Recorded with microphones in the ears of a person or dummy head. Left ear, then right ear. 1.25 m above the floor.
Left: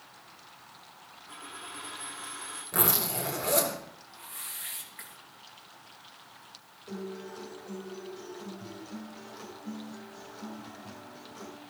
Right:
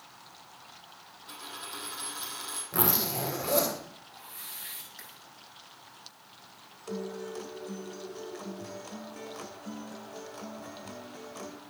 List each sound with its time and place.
1.3 s a dropped coin: 60° right (ahead or behind), 5.5 m
2.7 s a zipper: 5° left (ahead or behind), 4.5 m
4.1 s a whoosh: 5° left (ahead or behind), 5.5 m
6.9 s a guitar: 35° right (ahead or behind), 1.9 m